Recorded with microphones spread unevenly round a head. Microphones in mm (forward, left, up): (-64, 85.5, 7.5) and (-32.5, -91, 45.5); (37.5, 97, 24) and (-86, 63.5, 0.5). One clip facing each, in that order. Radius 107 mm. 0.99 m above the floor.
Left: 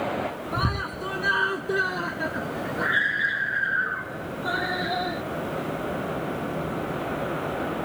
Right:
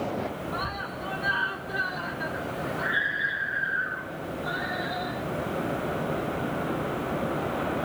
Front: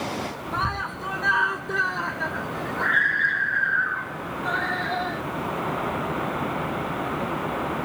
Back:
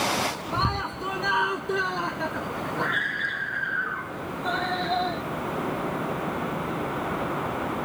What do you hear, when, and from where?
0.5 s a scream: 130° left; by 5.2 s 125° left